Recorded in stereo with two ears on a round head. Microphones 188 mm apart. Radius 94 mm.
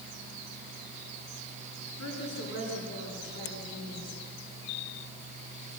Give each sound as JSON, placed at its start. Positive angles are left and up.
{"t": 2.0, "sound": "a woman speaking", "side_deg": 60, "distance_m": 9.5}